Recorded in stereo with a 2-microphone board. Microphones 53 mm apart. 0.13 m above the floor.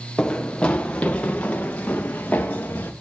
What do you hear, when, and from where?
0.2 s running footsteps: 15° left (ahead or behind), 1.7 m; by 2.9 s 30° left (ahead or behind), 3 m